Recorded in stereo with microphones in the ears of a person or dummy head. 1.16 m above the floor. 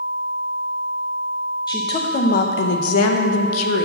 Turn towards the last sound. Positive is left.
turn(degrees=75)  # may be behind; listen again after turning